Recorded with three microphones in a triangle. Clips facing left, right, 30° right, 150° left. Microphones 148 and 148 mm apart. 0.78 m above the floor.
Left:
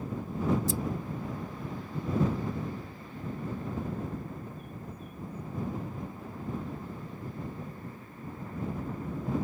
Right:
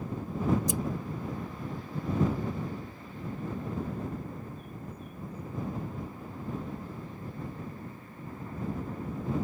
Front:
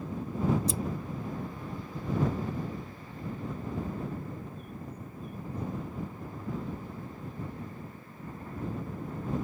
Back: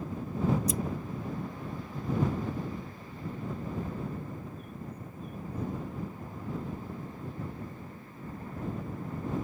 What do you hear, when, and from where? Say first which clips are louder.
0.7 s scissors: even, back 2 dB; 35° right